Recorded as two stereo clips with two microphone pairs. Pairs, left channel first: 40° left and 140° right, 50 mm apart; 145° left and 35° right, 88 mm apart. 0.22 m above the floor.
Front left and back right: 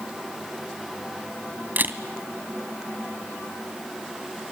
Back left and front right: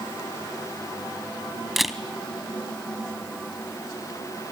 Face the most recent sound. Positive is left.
turn(degrees=-120)